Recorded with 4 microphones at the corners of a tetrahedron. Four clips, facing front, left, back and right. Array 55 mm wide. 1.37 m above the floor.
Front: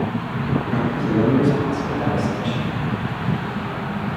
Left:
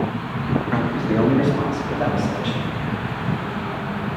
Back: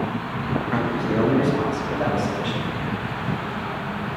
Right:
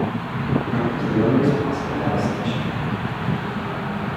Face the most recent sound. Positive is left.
turn(degrees=120)